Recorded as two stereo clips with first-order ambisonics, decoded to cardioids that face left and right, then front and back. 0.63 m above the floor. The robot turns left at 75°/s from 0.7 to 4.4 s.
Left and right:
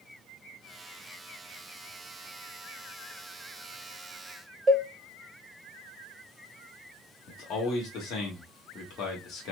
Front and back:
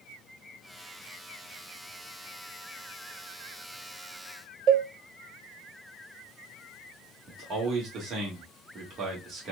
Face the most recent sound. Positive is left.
turn(degrees=130)